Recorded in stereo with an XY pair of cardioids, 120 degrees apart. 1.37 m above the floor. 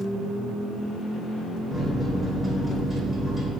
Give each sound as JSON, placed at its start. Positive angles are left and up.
{"t": 1.7, "sound": "a microwave", "azimuth_deg": 0, "distance_m": 1.5}